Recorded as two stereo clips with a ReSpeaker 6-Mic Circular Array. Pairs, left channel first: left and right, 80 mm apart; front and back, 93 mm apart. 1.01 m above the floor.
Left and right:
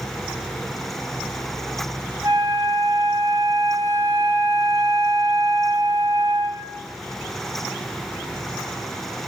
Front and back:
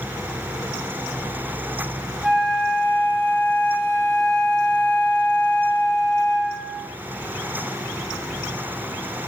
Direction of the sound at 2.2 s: 100° right.